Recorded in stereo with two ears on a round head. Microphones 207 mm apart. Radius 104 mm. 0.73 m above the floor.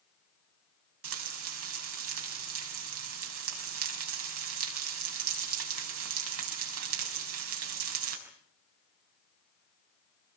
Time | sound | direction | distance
1.0 | frying | 65° right (ahead or behind) | 6 m